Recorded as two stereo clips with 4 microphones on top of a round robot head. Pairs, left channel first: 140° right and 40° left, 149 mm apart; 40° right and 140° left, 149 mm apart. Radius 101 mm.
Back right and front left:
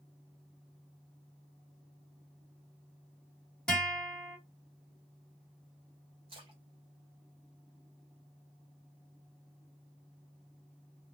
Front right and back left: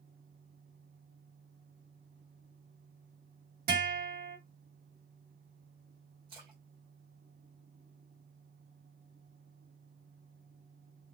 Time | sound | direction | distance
3.7 | a guitar | 135° left | 2 m
6.3 | a splash | 90° left | 1.8 m